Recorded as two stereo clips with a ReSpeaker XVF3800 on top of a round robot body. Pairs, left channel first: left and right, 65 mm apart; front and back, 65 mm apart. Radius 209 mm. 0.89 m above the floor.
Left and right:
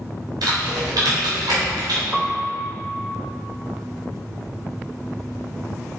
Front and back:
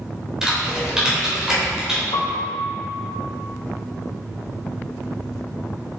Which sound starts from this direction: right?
Typing on a keyboard, at 0.4 s.